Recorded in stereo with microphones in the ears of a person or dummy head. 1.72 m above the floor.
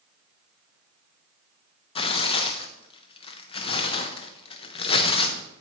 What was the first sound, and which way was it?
Tearing paper, 35° left (ahead or behind).